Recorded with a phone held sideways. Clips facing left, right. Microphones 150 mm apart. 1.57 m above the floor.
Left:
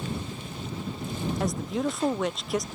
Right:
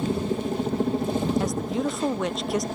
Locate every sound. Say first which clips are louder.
0.0 s a helicopter: right 10 dB; 55° right (ahead or behind)
1.4 s a woman speaking: right 2 dB; centre (ahead or behind)